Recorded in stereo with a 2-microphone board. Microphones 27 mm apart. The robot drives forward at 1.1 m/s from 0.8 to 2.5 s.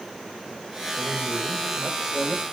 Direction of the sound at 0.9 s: 45° left (ahead or behind).